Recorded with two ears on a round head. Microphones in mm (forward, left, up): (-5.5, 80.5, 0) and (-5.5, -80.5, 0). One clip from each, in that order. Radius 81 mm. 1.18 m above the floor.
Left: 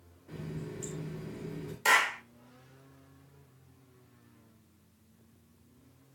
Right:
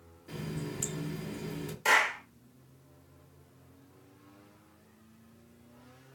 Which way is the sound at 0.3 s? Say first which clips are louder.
Right 3 dB; 65° right (ahead or behind).